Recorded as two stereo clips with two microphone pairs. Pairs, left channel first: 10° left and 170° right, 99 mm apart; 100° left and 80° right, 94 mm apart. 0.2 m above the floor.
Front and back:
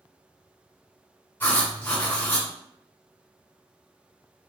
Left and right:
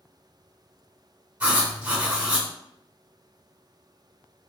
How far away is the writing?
About 1.6 m.